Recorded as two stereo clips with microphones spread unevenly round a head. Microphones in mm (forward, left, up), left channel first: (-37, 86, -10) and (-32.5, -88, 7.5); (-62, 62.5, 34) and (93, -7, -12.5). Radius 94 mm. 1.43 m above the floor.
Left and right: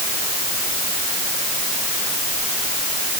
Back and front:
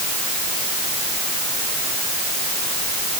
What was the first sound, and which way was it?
Only background noise.